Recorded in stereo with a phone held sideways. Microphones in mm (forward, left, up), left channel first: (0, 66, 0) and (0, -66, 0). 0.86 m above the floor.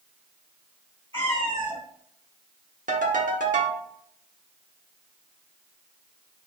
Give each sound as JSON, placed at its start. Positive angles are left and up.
{"t": 1.1, "sound": "a cat meowing", "side_deg": -40, "distance_m": 1.8}
{"t": 2.9, "sound": "a ringtone", "side_deg": -80, "distance_m": 0.9}